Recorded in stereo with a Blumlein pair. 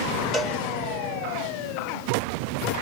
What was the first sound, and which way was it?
A cowbell, 10° right.